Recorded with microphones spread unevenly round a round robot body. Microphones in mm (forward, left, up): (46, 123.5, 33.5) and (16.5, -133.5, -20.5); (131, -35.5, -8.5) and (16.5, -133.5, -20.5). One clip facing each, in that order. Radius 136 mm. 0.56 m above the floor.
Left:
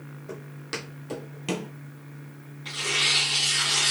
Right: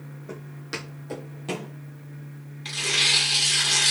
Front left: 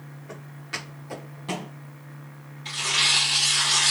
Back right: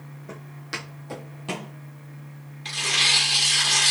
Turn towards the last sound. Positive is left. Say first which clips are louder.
# right 1 dB, back right 1 dB
turn(degrees=-140)